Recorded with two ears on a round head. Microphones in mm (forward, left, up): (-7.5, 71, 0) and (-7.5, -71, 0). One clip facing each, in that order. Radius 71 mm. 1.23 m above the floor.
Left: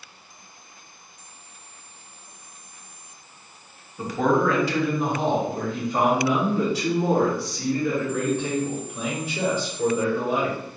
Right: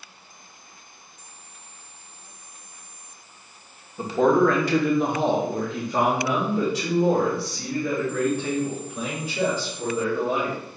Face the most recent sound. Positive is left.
turn(degrees=-40)  # may be behind; listen again after turning